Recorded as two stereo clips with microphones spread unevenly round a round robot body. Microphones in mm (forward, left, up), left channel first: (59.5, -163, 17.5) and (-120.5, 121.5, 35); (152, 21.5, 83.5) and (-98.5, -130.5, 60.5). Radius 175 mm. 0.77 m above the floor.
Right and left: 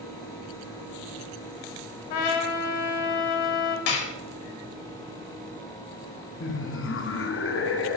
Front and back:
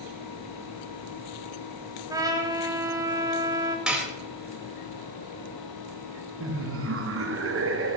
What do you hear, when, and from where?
2.1 s a trumpet: 70° right, 1.5 m
3.9 s dishes clattering: 60° right, 1.4 m
6.4 s laughter: 110° right, 1.0 m